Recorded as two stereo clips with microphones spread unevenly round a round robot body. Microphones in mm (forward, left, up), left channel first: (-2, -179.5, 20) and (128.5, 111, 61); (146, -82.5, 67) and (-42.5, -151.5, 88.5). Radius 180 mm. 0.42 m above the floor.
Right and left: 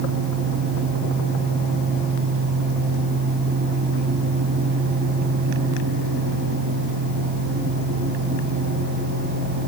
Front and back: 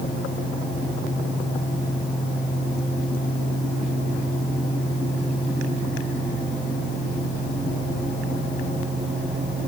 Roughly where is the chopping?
I don't hear chopping.